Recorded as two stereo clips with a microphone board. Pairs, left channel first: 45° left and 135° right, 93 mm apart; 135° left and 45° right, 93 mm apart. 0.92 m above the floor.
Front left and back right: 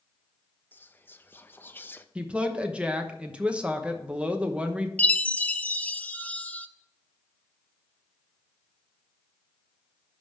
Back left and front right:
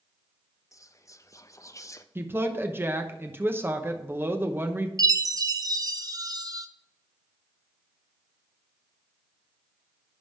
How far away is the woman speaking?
About 0.9 m.